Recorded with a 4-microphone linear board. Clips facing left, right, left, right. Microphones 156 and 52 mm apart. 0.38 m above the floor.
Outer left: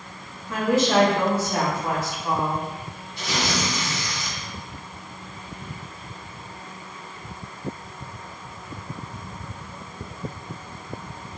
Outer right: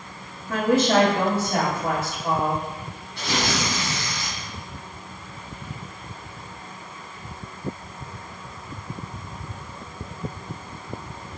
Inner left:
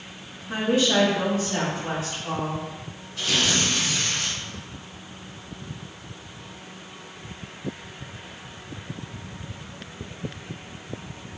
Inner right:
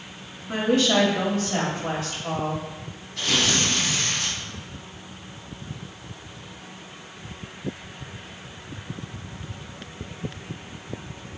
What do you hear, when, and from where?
0.5 s a woman speaking: 55° right (ahead or behind), 1.8 m
3.2 s tearing paper: 65° right (ahead or behind), 1.7 m